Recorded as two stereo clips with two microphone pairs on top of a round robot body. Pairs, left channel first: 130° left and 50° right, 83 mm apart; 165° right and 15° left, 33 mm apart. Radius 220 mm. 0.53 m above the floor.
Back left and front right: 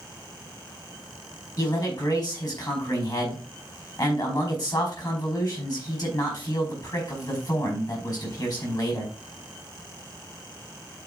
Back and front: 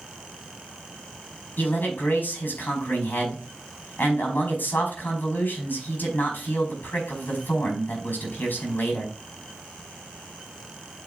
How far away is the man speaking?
About 4.5 m.